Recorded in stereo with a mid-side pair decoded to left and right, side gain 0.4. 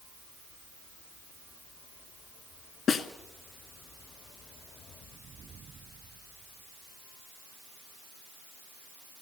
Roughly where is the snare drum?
Ahead left.